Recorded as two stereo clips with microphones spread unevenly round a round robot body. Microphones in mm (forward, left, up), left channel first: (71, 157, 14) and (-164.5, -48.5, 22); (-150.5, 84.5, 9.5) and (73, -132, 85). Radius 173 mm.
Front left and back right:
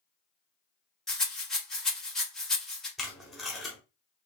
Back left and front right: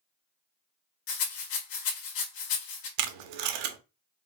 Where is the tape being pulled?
50° right, 0.6 m.